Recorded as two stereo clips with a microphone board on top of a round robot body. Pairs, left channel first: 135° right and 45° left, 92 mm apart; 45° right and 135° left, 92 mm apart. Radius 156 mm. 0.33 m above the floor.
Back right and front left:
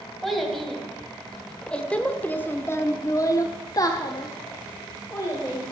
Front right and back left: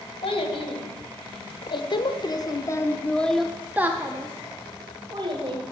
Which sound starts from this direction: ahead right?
A child speaking, at 0.2 s.